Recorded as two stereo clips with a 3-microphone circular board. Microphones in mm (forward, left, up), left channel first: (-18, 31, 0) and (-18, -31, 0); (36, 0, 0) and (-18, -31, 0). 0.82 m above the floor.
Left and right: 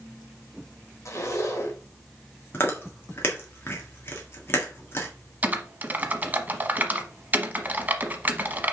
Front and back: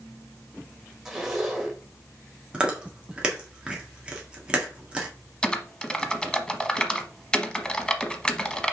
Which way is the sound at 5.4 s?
40° right.